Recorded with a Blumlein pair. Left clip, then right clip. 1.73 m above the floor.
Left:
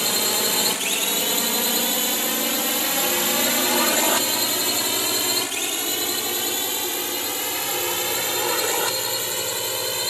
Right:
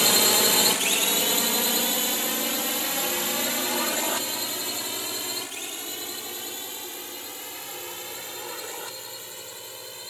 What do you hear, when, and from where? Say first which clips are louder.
0.0 s a drone: right 2 dB; 10° right; by 10.1 s 35° left